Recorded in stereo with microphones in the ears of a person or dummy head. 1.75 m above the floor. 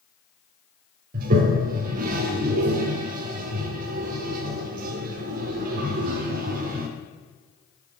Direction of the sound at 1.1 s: 50° right (ahead or behind).